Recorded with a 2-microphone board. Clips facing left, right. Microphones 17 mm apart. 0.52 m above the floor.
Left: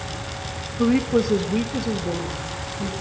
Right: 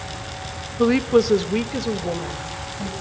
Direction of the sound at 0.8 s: 30° right (ahead or behind).